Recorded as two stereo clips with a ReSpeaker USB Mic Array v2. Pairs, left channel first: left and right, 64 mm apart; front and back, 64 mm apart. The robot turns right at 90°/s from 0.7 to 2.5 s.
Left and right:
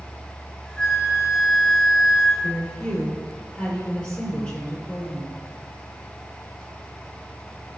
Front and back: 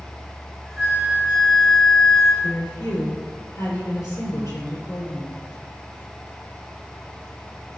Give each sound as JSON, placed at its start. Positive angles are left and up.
{"t": 0.8, "sound": "a flute", "azimuth_deg": 145, "distance_m": 0.9}
{"t": 2.4, "sound": "a woman speaking", "azimuth_deg": 10, "distance_m": 2.5}